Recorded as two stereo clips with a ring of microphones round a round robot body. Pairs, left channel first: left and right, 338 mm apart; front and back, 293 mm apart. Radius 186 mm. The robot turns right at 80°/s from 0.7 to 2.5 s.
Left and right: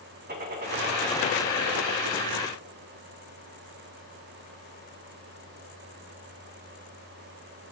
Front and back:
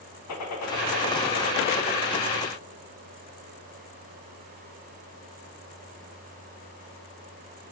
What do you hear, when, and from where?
0.3 s a gunshot: 30° right, 4 m; by 2.0 s 75° left, 4 m